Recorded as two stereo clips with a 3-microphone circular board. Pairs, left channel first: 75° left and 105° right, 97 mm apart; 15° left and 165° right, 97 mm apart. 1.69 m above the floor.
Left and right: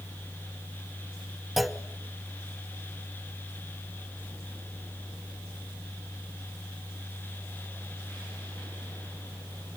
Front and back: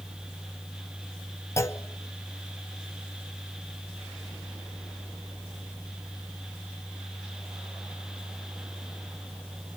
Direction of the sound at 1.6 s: 15° right.